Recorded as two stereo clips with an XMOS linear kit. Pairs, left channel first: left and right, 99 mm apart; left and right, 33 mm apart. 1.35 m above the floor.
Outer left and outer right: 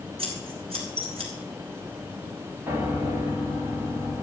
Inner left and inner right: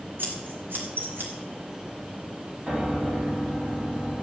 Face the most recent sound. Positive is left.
turn(degrees=-25)  # may be behind; listen again after turning